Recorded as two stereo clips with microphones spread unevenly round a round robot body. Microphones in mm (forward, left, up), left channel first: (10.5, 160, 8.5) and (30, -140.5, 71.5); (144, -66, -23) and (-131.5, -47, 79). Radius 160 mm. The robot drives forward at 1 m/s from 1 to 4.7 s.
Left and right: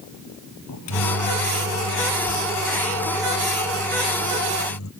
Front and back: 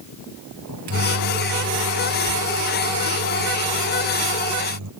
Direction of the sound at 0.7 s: 135° left.